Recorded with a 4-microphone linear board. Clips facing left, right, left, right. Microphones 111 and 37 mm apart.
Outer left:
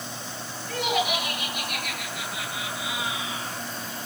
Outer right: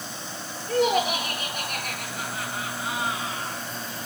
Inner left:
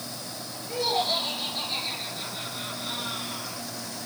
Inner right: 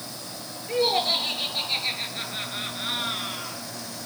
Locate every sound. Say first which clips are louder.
0.7 s laughter: outer right 4 dB, inner right 3 dB; 35° right (ahead or behind), 10 m; by 3.6 s 45° right (ahead or behind), 7 m